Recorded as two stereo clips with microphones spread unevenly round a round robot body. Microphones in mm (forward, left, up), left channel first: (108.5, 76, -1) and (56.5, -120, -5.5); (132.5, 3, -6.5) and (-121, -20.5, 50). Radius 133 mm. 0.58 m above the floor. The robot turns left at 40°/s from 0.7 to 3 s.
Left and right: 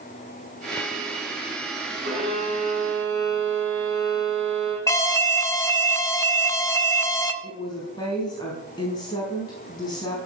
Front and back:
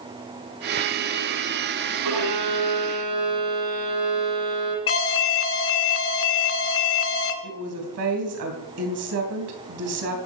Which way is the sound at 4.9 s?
Straight ahead.